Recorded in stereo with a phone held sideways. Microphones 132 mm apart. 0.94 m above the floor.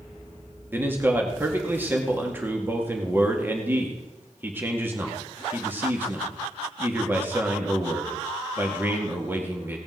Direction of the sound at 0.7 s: 15° right (ahead or behind).